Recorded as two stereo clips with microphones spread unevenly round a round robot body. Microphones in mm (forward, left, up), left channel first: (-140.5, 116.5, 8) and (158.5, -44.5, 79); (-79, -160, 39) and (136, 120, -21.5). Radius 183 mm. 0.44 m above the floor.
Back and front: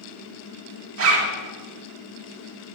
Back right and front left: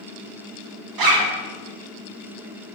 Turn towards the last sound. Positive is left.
turn(degrees=25)